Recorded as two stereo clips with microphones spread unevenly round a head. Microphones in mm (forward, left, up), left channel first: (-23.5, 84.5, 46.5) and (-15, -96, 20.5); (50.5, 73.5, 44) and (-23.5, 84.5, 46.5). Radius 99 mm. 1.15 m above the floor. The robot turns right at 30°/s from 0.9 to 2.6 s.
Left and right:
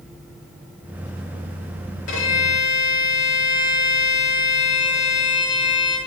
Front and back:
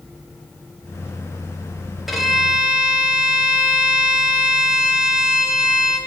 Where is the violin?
85° left, 1.9 m; by 6.0 s 100° left, 1.9 m.